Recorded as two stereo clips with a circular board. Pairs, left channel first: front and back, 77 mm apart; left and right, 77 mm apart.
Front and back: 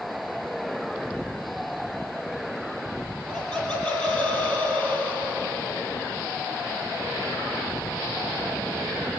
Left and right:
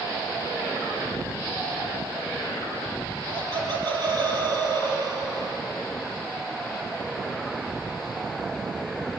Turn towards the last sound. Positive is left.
turn(degrees=-65)